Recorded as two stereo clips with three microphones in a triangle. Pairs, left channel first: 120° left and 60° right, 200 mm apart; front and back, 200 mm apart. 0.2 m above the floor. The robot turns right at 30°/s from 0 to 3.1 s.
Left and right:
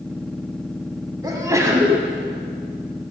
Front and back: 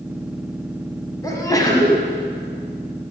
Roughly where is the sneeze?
Ahead right.